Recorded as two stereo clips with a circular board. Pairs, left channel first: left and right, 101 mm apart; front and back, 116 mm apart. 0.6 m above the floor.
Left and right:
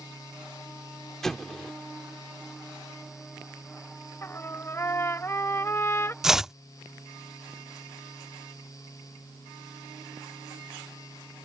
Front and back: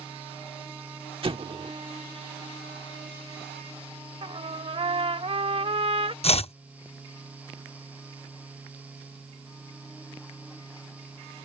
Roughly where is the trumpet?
Behind left.